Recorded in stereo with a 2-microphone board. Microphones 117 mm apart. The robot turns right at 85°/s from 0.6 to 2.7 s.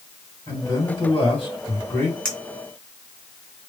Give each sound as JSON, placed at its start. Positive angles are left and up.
{"t": 0.5, "sound": "a man speaking", "azimuth_deg": 35, "distance_m": 2.0}
{"t": 2.2, "sound": "a clink", "side_deg": 5, "distance_m": 1.9}